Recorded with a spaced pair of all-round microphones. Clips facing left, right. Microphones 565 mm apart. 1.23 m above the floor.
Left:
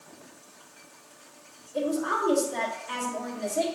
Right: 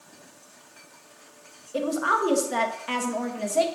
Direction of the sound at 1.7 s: 85° right.